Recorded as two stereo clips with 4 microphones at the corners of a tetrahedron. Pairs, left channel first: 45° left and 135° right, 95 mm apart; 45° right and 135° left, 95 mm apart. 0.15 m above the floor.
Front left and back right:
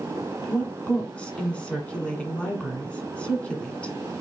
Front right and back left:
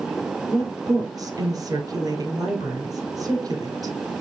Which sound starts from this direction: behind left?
A woman speaking, at 0.5 s.